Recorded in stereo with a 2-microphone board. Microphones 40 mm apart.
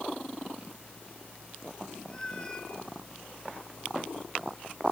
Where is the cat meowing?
20° left (ahead or behind), 2.5 m.